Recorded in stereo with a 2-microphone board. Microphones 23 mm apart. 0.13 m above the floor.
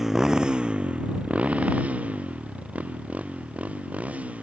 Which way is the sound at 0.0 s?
15° right (ahead or behind).